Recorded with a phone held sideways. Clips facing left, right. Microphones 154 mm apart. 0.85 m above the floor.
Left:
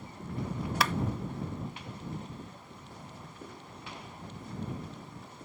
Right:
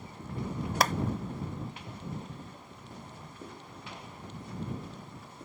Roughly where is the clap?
Right.